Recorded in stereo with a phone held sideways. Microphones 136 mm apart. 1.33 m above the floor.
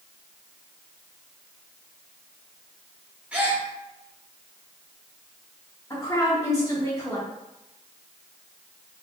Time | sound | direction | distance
3.3 | a gasp | 10° right (ahead or behind) | 1.0 m
5.9 | a woman speaking | 20° left (ahead or behind) | 1.3 m